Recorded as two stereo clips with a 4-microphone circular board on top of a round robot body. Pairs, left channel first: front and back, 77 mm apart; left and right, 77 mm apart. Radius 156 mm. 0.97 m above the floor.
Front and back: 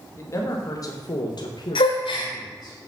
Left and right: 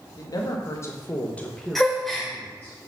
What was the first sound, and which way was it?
A man speaking, 55° left.